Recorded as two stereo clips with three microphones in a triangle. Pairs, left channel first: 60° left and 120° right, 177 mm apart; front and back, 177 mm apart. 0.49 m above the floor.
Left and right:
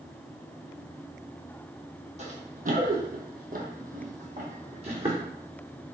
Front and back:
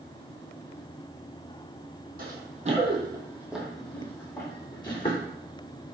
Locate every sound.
2.2 s running footsteps: 160° right, 0.8 m; by 5.3 s 60° right, 1.4 m